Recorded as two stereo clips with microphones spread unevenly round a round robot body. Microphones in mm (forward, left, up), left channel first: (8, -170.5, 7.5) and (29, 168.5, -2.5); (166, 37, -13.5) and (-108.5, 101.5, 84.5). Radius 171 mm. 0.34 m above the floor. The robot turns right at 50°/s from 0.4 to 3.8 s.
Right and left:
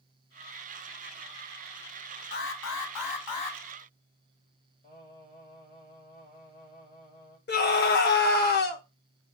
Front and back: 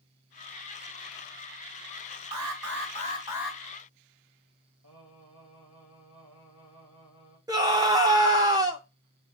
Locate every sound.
2.3 s an alarm: 155° right, 1.6 m; by 3.6 s 90° right, 1.6 m
4.8 s singing: 160° right, 4.5 m
7.5 s a scream: 90° right, 1.0 m